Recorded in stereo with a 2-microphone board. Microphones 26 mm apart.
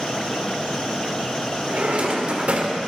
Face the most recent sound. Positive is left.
turn(degrees=-50)  # may be behind; listen again after turning